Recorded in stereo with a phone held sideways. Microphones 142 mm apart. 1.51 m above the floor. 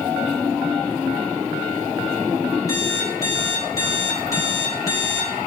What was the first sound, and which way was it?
An alarm clock, 25° left (ahead or behind).